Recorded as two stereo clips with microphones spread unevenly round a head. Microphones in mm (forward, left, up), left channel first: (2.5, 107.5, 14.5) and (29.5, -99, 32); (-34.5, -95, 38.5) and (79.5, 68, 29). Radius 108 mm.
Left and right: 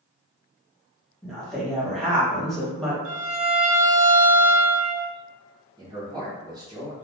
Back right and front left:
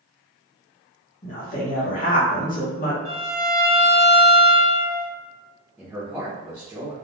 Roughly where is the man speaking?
Ahead.